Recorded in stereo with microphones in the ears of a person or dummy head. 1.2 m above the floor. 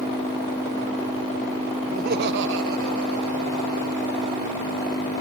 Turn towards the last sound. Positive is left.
turn(degrees=-85)